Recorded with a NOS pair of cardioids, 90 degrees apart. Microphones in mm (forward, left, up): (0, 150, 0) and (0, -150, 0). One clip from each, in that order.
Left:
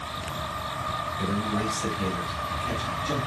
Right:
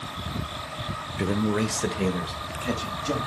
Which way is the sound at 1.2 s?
60° right.